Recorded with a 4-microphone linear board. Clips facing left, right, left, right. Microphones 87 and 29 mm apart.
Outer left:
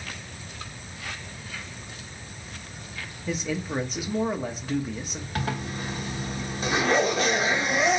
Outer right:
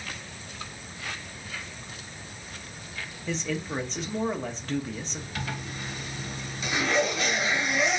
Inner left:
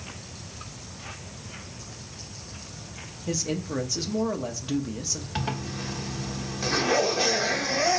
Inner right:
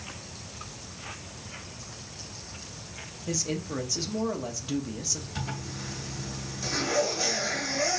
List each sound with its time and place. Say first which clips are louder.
3.3 s a man speaking: outer left 2 dB, inner left 2 dB; 10° left (ahead or behind), 0.8 m
5.3 s a zipper: outer left 6 dB, inner left 5 dB; 45° left (ahead or behind), 1.3 m